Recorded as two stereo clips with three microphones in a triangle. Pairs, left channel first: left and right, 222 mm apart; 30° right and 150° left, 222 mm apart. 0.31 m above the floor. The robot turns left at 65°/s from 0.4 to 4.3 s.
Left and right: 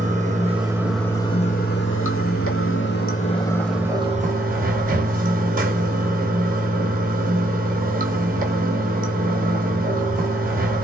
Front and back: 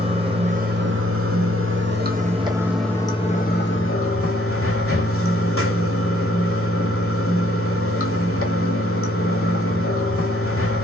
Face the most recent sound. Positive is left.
turn(degrees=-35)